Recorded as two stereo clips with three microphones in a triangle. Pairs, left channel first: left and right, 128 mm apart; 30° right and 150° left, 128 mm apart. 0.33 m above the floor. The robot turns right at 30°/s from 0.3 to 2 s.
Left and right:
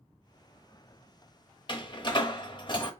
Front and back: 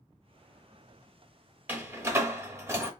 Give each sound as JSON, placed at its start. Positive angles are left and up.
{"t": 1.7, "sound": "a door slam", "azimuth_deg": 90, "distance_m": 0.7}